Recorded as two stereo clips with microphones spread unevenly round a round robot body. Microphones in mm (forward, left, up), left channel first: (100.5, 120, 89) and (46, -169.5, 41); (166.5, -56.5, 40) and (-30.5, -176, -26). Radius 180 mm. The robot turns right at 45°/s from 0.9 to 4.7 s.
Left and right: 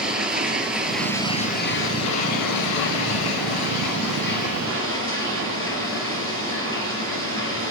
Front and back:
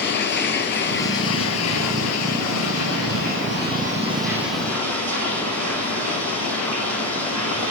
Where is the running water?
10° right, 3 m; by 7.7 s 160° left, 3 m.